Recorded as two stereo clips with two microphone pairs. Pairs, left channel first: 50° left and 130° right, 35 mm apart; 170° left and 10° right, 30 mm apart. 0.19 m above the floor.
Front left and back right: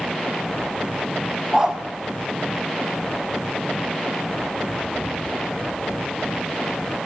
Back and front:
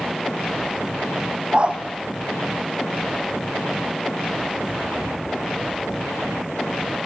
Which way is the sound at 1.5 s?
60° right.